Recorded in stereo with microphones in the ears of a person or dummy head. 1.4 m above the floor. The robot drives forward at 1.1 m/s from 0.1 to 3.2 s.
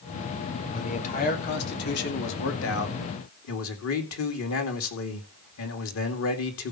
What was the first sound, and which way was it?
A man speaking, 40° left (ahead or behind).